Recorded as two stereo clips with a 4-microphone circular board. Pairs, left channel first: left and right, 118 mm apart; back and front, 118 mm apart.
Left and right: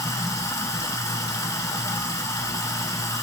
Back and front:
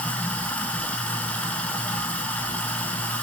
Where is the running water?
115° left, 0.8 m.